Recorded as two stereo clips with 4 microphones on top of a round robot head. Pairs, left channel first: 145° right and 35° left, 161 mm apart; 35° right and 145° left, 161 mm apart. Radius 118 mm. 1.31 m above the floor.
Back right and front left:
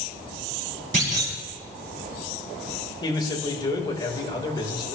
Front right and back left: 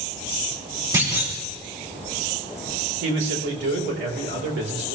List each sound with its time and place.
0.9 s a clunk: 75° left, 6.5 m
3.0 s a man speaking: 150° left, 4 m